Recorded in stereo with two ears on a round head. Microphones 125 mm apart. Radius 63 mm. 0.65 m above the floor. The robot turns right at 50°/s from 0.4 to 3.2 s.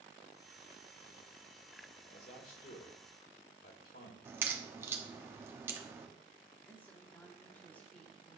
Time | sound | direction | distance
2.1 | a man speaking | 40° left | 1.7 m
4.2 | a crack | 15° right (ahead or behind) | 1.1 m
6.7 | a woman speaking | 10° left (ahead or behind) | 1.4 m